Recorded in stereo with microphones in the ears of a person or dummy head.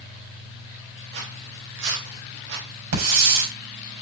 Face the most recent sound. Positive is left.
turn(degrees=-80)